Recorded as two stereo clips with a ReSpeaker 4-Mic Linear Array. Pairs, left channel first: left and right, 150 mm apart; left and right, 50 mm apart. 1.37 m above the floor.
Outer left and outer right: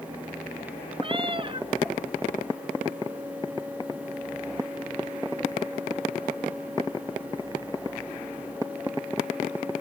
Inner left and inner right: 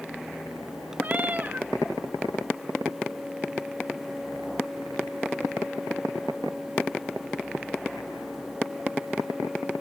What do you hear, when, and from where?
1.0 s a cat meowing: 35° right (ahead or behind), 0.9 m